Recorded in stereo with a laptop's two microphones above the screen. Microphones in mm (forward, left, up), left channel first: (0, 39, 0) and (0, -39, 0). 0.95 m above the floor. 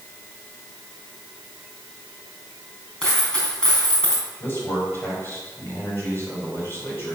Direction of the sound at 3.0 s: 10° left (ahead or behind).